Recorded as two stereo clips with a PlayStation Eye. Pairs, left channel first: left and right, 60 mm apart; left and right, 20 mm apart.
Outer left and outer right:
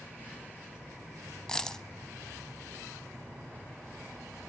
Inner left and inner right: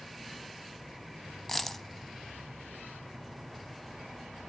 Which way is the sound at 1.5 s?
10° left (ahead or behind).